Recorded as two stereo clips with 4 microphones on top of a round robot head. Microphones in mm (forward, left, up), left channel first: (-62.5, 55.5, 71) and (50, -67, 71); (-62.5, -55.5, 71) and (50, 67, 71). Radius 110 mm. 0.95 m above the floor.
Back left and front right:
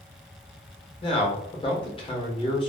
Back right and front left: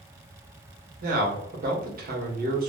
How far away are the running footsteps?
No running footsteps in this recording.